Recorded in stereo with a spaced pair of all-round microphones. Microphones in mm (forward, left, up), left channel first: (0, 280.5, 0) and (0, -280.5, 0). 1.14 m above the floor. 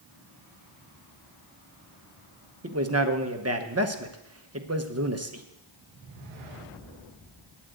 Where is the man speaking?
25° right (ahead or behind), 1.0 m.